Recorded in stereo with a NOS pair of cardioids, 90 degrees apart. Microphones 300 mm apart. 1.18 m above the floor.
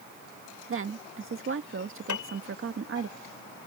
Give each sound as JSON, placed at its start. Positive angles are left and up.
{"t": 0.7, "sound": "a woman speaking", "azimuth_deg": -40}
{"t": 2.1, "sound": "a piano", "azimuth_deg": 65}